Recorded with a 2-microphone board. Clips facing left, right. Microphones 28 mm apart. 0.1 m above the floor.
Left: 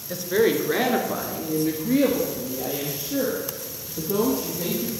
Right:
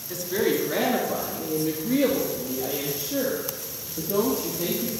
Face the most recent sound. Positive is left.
turn(degrees=0)  # may be behind; listen again after turning